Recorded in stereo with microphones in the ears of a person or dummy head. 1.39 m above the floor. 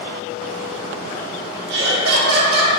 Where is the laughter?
60° right (ahead or behind), 0.9 m.